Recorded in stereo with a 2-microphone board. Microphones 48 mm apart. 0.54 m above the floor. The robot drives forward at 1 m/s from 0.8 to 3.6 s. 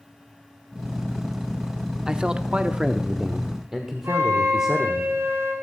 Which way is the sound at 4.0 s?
65° right (ahead or behind).